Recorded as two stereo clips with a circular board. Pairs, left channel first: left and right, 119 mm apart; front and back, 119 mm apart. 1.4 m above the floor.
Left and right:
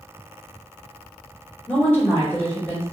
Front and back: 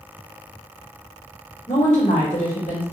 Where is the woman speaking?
15° left, 1.3 m.